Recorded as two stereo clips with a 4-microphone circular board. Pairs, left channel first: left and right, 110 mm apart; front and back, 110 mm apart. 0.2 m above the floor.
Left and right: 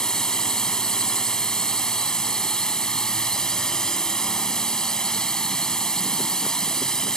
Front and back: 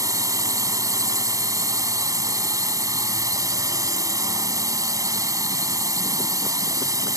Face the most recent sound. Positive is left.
turn(degrees=170)